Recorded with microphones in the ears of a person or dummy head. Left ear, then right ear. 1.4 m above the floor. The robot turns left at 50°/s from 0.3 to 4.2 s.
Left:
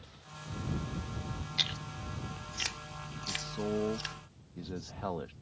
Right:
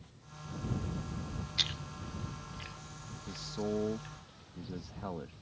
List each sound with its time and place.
1.6 s chewing: 5° right (ahead or behind); by 4.2 s 45° left (ahead or behind)
3.3 s a man speaking: 155° right; by 5.3 s 155° left